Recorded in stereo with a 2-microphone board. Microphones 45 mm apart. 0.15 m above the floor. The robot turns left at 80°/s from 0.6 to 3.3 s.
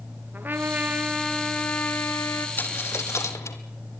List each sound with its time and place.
0.3 s a trumpet: 120° right, 2 m; by 2.5 s 90° left, 2 m
2.6 s a dropped coin: 40° left (ahead or behind), 1.8 m; by 3.6 s 80° left, 1.8 m